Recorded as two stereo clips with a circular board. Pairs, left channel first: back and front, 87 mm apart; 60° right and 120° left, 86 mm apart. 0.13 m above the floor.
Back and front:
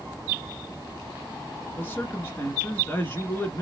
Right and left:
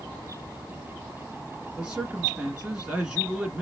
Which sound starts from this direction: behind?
A man speaking, at 1.8 s.